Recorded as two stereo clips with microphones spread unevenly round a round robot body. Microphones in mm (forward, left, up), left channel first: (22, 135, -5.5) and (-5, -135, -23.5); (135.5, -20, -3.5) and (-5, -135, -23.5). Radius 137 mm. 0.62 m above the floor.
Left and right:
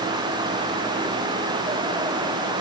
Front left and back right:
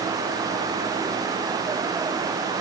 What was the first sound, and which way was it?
Only background noise.